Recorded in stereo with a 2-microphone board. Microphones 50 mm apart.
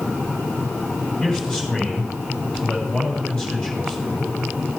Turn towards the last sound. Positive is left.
turn(degrees=20)  # may be behind; listen again after turning